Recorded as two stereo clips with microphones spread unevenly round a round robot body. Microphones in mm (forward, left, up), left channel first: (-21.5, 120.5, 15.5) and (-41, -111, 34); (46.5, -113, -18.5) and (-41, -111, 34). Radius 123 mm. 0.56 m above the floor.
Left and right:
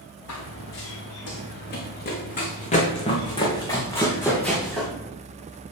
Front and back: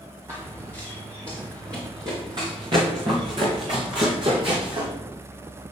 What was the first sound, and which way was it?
Running footsteps, 110° left.